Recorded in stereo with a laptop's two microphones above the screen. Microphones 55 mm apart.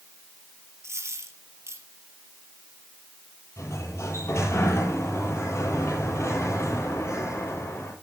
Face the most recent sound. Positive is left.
turn(degrees=55)  # may be behind; listen again after turning